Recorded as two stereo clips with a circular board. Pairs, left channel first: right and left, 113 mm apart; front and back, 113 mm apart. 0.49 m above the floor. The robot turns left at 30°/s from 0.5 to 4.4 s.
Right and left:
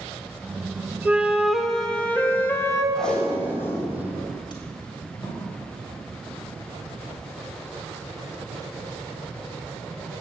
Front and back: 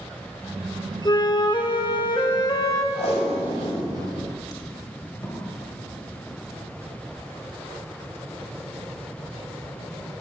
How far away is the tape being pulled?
About 3 m.